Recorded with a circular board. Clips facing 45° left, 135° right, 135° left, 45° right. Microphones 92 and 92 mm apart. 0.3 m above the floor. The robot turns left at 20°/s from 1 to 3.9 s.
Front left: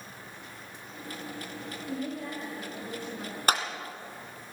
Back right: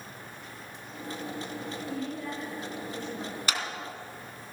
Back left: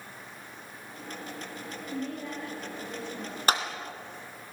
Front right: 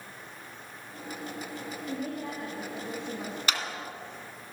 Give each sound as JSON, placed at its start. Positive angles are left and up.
{"t": 1.9, "sound": "a woman speaking", "azimuth_deg": -5, "distance_m": 7.0}
{"t": 3.5, "sound": "a clap", "azimuth_deg": 90, "distance_m": 2.5}